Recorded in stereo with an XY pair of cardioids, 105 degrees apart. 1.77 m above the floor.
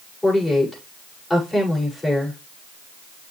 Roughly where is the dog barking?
No dog barking in this recording.